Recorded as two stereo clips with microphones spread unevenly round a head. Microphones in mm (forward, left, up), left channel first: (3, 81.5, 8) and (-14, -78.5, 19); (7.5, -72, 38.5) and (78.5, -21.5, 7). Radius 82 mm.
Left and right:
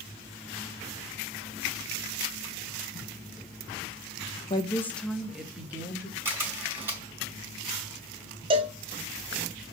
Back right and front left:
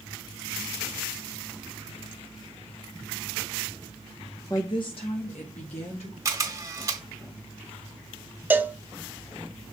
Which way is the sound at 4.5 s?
145° left.